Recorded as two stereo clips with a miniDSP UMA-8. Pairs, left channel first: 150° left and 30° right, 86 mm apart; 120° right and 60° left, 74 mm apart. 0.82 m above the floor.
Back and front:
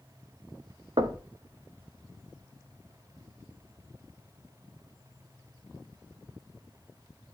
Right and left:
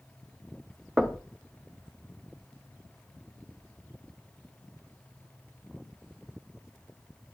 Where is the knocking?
20° right, 0.9 m.